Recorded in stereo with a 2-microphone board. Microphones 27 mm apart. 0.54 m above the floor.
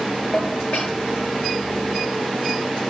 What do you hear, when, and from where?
0.3 s dishes clattering: 65° left (ahead or behind), 6.5 m